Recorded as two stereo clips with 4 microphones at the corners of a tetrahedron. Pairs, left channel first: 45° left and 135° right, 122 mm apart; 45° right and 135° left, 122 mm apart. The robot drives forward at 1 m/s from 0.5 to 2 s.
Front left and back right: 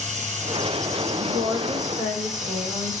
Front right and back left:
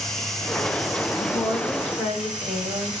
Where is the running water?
135° right, 5 m; by 3.0 s 145° right, 6 m.